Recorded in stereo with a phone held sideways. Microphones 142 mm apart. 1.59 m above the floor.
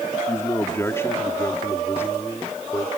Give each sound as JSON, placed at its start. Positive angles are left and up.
{"t": 0.3, "sound": "a man speaking", "side_deg": 20}